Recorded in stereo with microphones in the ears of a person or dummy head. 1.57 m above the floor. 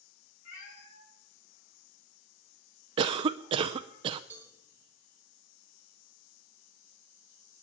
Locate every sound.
0.5 s a cat meowing: 80° left, 6.5 m; by 4.0 s 75° left (ahead or behind), 8 m
3.0 s a cough: 30° right (ahead or behind), 0.6 m
4.3 s a cowbell: 15° right (ahead or behind), 2.5 m